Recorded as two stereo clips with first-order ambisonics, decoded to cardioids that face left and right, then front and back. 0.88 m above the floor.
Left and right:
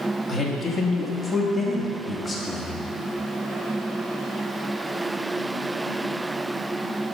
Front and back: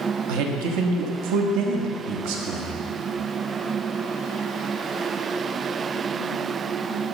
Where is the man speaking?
175° left, 1.1 m.